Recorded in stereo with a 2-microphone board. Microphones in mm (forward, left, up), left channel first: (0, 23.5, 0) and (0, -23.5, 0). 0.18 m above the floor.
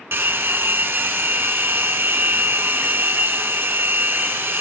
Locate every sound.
0.1 s a hair dryer: 60° right (ahead or behind), 0.6 m